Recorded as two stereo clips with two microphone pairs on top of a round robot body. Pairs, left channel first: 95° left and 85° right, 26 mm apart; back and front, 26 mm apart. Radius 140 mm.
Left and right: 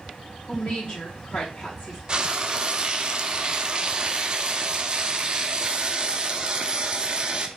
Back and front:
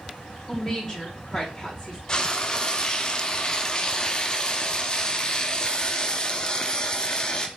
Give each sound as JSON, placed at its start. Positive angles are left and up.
{"t": 0.5, "sound": "a woman speaking", "azimuth_deg": 110, "distance_m": 2.0}
{"t": 2.1, "sound": "frying", "azimuth_deg": -130, "distance_m": 0.7}